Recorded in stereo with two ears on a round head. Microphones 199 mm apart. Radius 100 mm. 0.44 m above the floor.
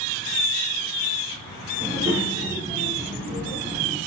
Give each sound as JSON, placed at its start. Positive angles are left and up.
{"t": 1.8, "sound": "a child speaking", "side_deg": -30, "distance_m": 0.9}